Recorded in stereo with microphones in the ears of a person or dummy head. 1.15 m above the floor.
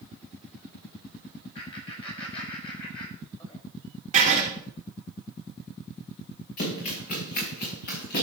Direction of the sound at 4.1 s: 40° right (ahead or behind).